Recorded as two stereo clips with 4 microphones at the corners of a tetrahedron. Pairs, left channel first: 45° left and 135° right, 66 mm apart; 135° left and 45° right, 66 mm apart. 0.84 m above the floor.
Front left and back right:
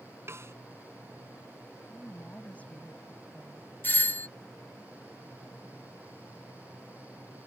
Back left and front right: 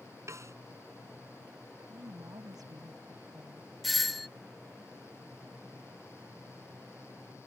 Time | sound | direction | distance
0.3 | a snare drum | 85° right | ?
1.8 | a woman speaking | 25° right | ?
3.8 | a doorbell | 45° left | ?